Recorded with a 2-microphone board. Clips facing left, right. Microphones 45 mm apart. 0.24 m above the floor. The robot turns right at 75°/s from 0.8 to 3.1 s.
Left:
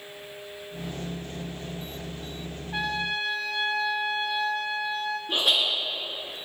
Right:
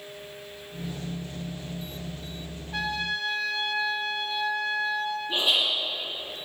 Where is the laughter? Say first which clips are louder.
Left 1 dB; 65° left (ahead or behind), 3.5 m.